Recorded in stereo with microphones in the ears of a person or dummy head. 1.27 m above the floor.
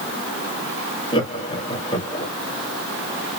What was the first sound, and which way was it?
Laughter, 25° left (ahead or behind).